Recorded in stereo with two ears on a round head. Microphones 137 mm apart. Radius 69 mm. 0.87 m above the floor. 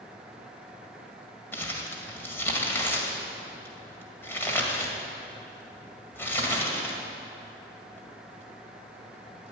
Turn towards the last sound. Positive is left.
turn(degrees=15)  # may be behind; listen again after turning